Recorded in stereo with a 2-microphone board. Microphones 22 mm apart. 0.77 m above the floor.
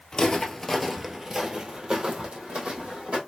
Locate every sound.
0.1 s footsteps: 30° left (ahead or behind), 0.8 m; by 3.2 s 65° right (ahead or behind), 1.8 m